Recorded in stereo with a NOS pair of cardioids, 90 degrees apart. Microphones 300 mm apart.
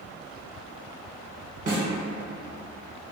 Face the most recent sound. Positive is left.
turn(degrees=-30)